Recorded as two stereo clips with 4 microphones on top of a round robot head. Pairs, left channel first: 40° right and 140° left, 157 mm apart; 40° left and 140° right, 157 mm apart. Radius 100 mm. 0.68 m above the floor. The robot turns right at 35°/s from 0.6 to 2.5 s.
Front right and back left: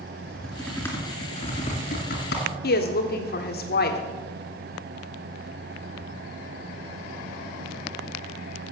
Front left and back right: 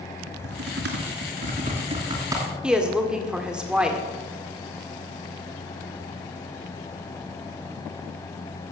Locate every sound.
0.3 s typing on a keyboard: 130° right, 2.5 m; by 2.5 s 60° right, 2.5 m
2.6 s a woman speaking: 55° right, 1.8 m